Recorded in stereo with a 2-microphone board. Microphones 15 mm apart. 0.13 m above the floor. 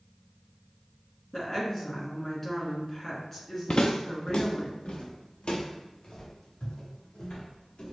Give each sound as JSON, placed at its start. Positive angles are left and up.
{"t": 1.3, "sound": "a woman speaking", "side_deg": 30, "distance_m": 1.7}
{"t": 3.7, "sound": "footsteps", "side_deg": 80, "distance_m": 0.6}